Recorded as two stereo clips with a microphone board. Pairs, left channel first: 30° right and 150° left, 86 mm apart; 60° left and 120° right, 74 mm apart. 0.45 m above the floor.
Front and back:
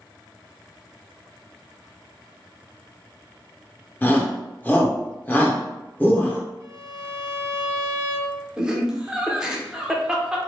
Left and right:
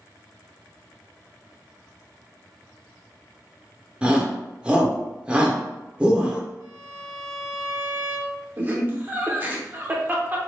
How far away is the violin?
About 0.9 m.